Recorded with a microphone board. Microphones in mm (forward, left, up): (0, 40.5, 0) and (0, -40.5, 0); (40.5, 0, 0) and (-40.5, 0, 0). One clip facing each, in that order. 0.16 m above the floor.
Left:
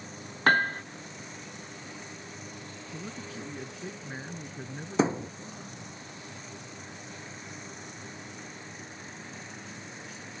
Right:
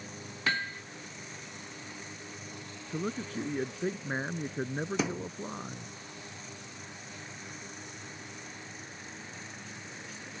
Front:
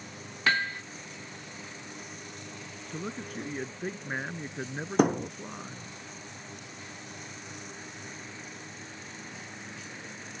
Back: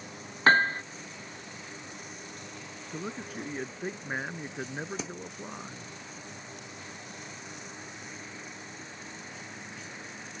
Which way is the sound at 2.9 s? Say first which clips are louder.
Right 7 dB, even; 95° right.